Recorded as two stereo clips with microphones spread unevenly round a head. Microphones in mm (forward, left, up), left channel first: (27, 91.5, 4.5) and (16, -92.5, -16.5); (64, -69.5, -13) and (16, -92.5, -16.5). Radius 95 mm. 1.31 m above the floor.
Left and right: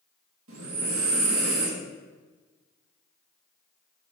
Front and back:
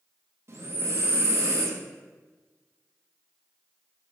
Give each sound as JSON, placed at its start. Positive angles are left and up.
{"t": 0.5, "sound": "breathing", "azimuth_deg": -120, "distance_m": 1.6}